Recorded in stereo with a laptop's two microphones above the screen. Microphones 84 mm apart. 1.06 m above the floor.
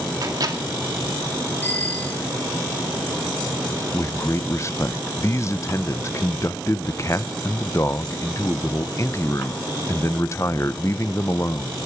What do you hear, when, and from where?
0.2 s a microwave: 50° right (ahead or behind), 2 m
1.6 s a bicycle bell: 20° left (ahead or behind), 5.5 m
3.9 s a man speaking: 35° left (ahead or behind), 0.7 m